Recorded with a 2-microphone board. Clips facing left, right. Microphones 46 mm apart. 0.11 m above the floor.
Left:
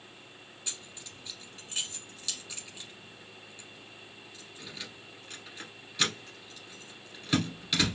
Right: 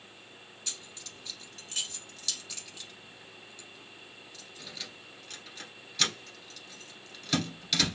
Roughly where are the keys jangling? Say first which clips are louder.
Even; centre.